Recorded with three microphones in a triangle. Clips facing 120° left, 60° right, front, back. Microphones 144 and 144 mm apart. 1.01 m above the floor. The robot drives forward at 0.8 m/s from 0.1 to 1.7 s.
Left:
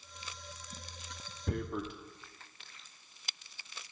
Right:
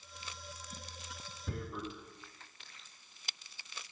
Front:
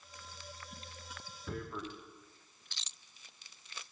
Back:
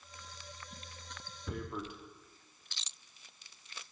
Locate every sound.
1.5 s tearing paper: 90° left, 0.7 m; by 1.9 s 105° left, 0.7 m